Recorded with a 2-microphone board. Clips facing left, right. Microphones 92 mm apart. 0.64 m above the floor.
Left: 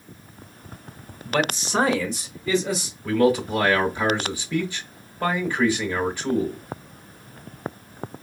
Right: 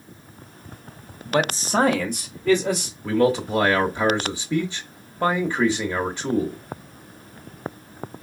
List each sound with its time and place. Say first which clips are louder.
1.3 s a man speaking: right 2 dB; 15° right (ahead or behind), 0.8 m; by 2.9 s 65° right (ahead or behind), 2 m
3.0 s a man speaking: even; 25° right (ahead or behind), 0.8 m